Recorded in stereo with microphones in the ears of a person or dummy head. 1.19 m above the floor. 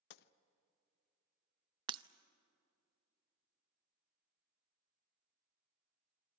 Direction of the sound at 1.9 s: 30° right (ahead or behind).